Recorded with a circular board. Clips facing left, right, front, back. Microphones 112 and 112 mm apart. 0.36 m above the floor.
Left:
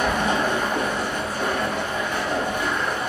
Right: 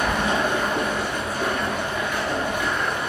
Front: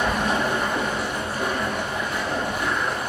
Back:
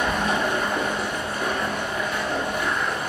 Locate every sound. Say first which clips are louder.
0.0 s running water: left 1 dB, even; 40° left, 2.5 m